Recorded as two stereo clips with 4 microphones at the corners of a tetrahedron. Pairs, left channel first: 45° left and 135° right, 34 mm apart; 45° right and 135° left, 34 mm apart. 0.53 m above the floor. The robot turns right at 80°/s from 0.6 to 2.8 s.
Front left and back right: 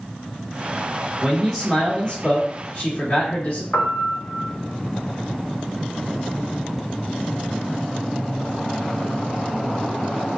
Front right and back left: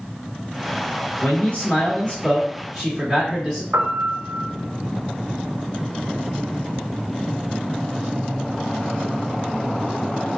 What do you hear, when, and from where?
1.2 s a man speaking: 65° right, 1.7 m; by 3.6 s 65° left, 1.7 m
3.7 s a piano: 110° left, 0.8 m